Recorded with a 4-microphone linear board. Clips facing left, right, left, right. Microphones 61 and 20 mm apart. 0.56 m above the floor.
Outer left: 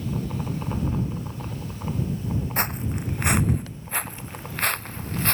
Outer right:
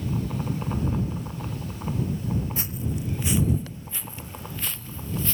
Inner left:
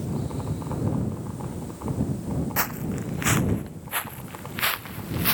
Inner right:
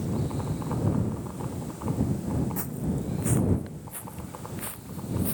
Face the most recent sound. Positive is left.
turn(degrees=60)  # may be behind; listen again after turning